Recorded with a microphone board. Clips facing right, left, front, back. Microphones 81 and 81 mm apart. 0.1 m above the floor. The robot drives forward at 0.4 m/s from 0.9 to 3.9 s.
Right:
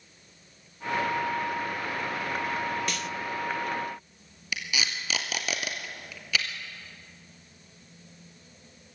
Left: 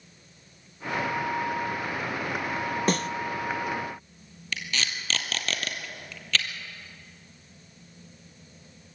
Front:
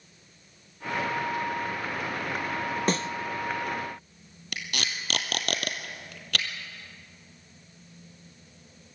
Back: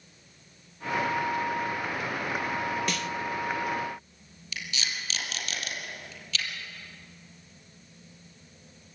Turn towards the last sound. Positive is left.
turn(degrees=-10)